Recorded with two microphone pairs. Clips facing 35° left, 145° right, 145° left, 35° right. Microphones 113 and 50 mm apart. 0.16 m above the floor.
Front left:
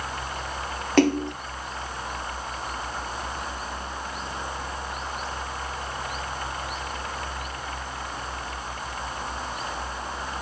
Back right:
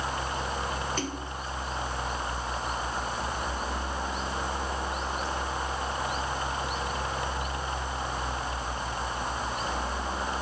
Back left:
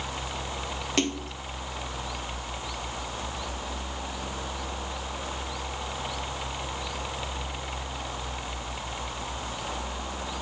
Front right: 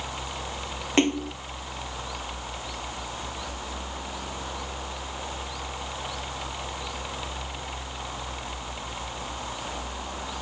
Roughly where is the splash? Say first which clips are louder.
Front left 14 dB, front right 6 dB; ahead left.